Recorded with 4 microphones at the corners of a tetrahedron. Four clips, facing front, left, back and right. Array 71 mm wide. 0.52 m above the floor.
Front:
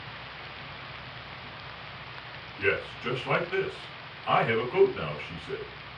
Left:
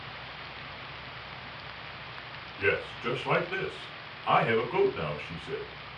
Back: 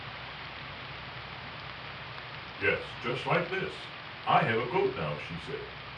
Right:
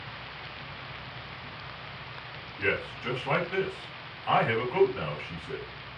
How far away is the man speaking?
About 1.7 m.